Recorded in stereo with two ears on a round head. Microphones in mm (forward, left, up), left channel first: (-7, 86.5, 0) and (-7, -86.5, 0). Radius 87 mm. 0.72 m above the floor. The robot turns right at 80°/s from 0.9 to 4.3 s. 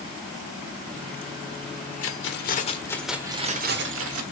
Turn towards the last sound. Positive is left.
turn(degrees=-80)